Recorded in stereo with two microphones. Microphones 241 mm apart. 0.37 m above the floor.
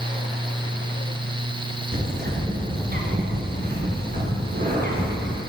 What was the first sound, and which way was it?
A bird, 40° right (ahead or behind).